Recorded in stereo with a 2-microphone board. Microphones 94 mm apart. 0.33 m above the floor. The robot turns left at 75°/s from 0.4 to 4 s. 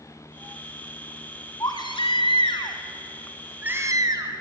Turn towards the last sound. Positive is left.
turn(degrees=-45)